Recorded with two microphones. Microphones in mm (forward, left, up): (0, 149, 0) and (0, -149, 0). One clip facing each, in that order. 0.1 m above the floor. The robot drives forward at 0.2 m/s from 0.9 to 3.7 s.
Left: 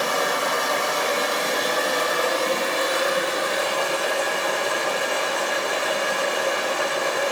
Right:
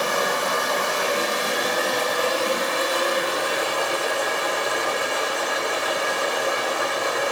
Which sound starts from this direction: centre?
Running water, at 0.0 s.